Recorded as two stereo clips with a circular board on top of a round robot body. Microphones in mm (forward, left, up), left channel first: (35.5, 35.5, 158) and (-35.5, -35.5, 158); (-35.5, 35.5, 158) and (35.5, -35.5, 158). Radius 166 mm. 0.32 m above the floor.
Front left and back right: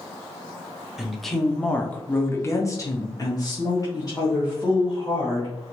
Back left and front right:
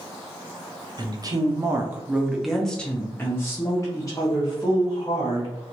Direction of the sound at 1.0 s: 50° right.